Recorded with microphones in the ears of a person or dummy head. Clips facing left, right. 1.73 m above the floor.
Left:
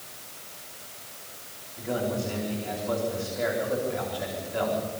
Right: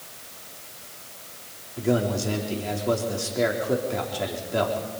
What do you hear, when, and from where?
1.8 s a man speaking: 60° right (ahead or behind), 4.5 m